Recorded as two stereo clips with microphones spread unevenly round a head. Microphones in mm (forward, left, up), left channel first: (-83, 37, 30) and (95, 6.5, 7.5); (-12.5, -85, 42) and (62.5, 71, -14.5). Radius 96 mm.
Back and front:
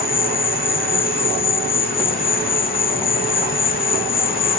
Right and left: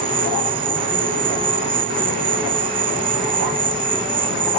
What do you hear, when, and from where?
0.0 s an insect: 125° left